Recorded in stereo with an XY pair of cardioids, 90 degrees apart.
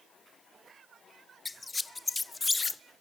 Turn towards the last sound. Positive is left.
turn(degrees=25)